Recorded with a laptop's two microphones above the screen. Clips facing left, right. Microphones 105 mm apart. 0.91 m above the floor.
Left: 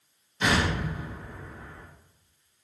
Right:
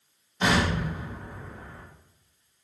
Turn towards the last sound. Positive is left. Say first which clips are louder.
# right 1 dB
turn(degrees=-30)  # may be behind; listen again after turning